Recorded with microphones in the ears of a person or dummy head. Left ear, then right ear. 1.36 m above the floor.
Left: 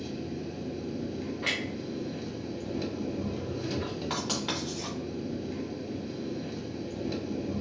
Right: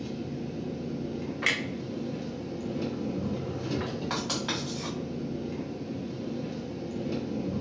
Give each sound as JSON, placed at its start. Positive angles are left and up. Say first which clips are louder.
{"t": 0.0, "sound": "an engine running", "louder": "even", "side_deg": 20, "distance_m": 0.9}
{"t": 1.4, "sound": "a clunk", "louder": "right 3 dB", "side_deg": -40, "distance_m": 0.6}
{"t": 4.1, "sound": "writing", "louder": "right 1 dB", "side_deg": 10, "distance_m": 1.5}